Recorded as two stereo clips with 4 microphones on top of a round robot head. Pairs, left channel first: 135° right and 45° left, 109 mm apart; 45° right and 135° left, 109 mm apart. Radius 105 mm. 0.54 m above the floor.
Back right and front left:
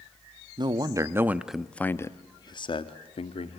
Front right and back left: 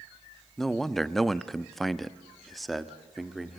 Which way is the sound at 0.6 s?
40° left.